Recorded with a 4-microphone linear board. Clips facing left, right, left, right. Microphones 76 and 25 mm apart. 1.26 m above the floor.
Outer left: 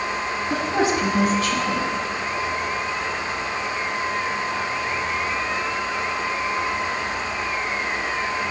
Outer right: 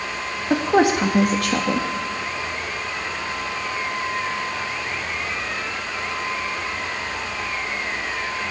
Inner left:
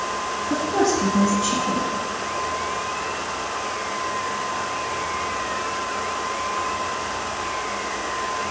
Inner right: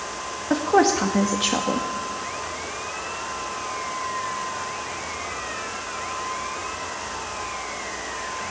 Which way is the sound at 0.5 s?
70° right (ahead or behind).